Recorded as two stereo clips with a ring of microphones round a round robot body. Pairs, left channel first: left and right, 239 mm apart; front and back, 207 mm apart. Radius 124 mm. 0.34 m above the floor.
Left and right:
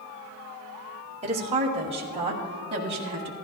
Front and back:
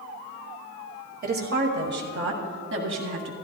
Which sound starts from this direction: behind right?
A woman speaking, at 1.2 s.